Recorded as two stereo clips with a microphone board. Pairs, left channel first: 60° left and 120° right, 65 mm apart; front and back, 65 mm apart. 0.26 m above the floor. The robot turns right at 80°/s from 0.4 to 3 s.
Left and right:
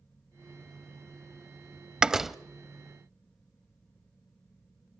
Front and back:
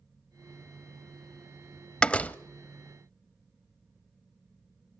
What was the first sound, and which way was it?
A door slam, 60° right.